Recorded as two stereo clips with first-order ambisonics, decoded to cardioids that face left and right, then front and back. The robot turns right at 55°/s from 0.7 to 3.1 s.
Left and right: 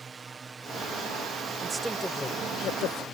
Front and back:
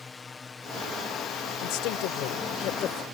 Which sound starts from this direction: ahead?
A woman speaking, at 1.6 s.